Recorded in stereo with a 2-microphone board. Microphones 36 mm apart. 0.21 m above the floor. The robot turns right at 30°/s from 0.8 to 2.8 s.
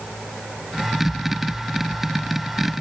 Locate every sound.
Only background noise.